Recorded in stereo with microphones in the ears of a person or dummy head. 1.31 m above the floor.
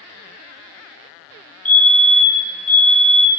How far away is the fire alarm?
About 1.1 m.